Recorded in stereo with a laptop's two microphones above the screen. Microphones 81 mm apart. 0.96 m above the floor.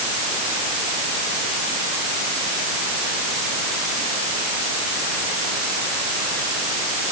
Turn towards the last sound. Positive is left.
No sound to turn to.